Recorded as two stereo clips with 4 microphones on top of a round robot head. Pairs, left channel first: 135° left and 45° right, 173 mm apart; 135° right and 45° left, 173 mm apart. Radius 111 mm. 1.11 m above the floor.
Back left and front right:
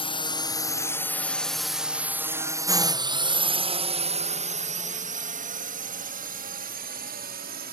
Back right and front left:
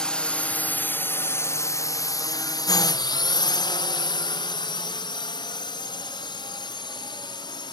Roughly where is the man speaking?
No man speaking in this recording.